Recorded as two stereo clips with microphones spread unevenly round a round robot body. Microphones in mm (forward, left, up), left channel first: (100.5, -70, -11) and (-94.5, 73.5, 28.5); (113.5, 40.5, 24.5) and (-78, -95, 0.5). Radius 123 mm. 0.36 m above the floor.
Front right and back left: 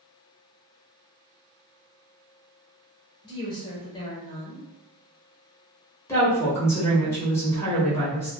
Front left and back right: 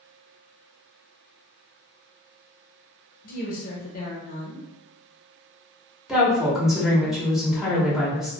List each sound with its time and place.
3.2 s a woman speaking: 5° left, 1.0 m
6.1 s a woman speaking: 75° right, 0.9 m